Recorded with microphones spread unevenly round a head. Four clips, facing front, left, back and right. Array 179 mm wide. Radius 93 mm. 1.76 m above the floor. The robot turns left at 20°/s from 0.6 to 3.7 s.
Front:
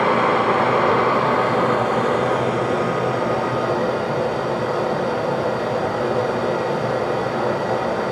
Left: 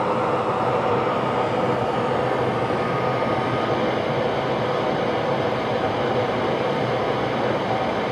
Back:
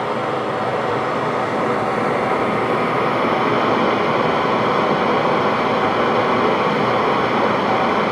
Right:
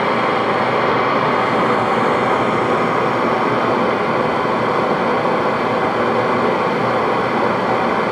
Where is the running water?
65° right, 1.7 m; by 8.1 s 125° right, 1.7 m.